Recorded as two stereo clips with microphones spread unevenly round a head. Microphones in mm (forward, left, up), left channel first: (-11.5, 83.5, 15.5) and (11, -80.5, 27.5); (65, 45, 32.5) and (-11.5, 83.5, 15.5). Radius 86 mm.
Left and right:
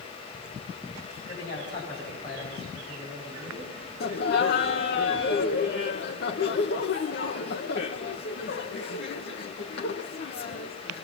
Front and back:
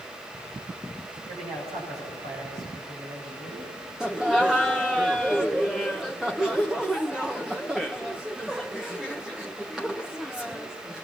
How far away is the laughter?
About 1.0 m.